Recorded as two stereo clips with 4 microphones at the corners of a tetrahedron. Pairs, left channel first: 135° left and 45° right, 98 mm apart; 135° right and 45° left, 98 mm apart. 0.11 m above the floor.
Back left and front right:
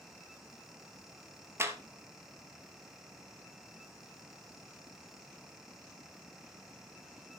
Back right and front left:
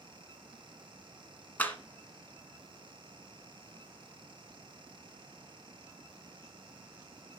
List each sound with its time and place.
1.6 s a clap: 80° right, 1.6 m